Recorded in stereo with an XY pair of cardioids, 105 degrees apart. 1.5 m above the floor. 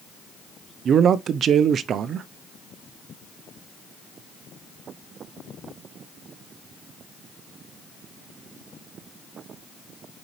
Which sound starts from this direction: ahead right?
A man speaking, at 0.8 s.